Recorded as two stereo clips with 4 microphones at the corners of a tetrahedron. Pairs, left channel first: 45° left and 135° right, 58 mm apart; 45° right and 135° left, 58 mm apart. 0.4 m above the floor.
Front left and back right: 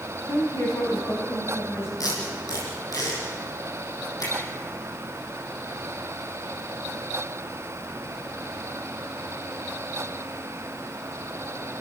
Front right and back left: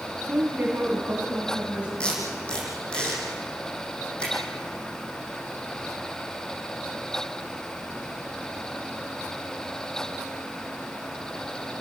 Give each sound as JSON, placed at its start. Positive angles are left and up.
{"t": 0.3, "sound": "a woman speaking", "azimuth_deg": 70, "distance_m": 3.5}
{"t": 2.0, "sound": "tape being pulled", "azimuth_deg": 30, "distance_m": 7.0}